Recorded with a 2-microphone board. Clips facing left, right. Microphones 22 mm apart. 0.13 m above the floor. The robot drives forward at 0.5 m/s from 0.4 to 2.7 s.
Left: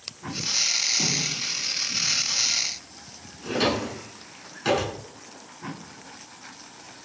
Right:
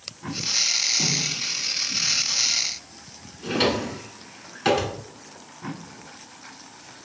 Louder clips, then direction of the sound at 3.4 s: Right 2 dB; 25° right (ahead or behind).